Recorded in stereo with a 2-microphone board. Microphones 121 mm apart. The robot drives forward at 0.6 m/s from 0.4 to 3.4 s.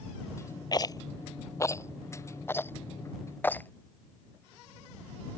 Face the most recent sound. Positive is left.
turn(degrees=15)  # may be behind; listen again after turning